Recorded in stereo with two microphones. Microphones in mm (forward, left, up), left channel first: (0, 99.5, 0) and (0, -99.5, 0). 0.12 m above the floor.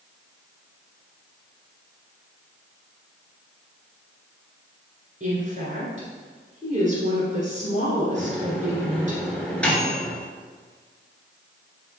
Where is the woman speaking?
40° right (ahead or behind), 1.7 m.